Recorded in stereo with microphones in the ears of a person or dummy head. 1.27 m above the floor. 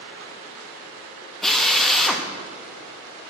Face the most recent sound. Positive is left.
turn(degrees=0)  # may be behind; listen again after turning